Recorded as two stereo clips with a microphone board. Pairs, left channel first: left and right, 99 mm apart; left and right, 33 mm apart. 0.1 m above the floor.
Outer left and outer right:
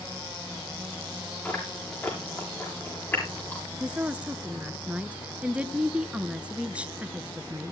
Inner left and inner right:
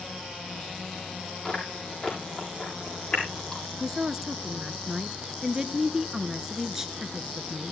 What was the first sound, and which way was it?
Chewing, 20° left (ahead or behind).